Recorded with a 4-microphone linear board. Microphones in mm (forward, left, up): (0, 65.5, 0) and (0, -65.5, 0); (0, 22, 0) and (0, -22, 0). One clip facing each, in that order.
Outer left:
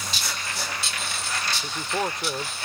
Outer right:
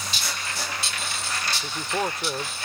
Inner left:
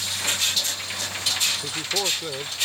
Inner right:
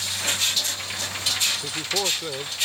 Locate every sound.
1.6 s a man speaking: centre (ahead or behind)